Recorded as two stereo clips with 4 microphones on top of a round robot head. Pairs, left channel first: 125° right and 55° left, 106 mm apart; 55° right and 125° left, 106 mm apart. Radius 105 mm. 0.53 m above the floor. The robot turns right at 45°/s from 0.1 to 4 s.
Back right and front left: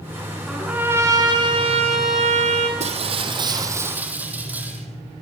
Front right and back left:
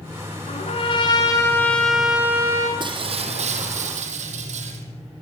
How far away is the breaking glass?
About 4 m.